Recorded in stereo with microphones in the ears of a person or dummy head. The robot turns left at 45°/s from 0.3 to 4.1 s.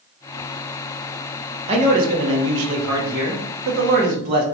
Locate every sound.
1.7 s a man speaking: 30° right, 0.8 m; by 4.4 s 140° right, 0.8 m